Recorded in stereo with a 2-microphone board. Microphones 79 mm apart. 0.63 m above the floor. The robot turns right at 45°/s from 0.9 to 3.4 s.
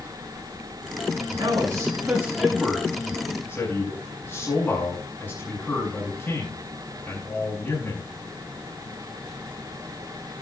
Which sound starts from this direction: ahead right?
A man speaking, at 1.4 s.